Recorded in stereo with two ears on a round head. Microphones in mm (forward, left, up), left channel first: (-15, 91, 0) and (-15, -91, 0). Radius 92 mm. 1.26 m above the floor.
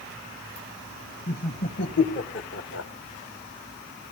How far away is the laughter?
About 1.8 m.